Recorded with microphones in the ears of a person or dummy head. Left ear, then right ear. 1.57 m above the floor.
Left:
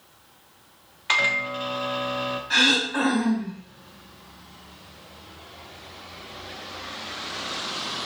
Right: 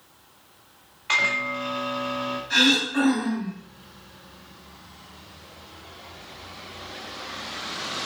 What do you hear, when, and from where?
1.1 s a microwave: 15° left (ahead or behind), 0.7 m
2.5 s throat clearing: 25° left (ahead or behind), 1.6 m